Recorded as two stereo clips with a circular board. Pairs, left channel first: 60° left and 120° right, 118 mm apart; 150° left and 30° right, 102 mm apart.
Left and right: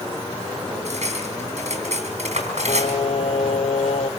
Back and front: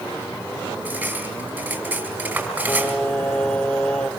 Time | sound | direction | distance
0.8 | cutlery clinking | 105° right | 4.5 m
2.7 | singing | 70° left | 1.0 m